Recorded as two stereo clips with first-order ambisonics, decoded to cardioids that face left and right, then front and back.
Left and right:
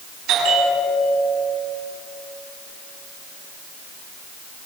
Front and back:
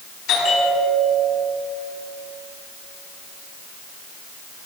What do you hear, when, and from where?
0.3 s a bell: 50° right, 10 m